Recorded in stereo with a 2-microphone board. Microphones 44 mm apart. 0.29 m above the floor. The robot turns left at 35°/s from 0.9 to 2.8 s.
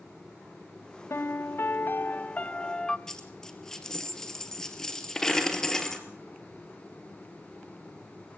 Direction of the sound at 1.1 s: 80° left.